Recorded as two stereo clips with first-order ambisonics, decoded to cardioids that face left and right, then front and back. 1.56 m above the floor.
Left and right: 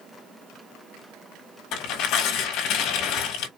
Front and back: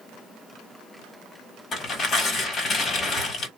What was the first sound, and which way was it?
Tearing paper, 65° left.